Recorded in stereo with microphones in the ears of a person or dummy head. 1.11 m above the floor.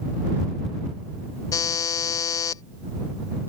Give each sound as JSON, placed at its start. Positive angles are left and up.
{"t": 1.5, "sound": "a buzzer", "side_deg": 20}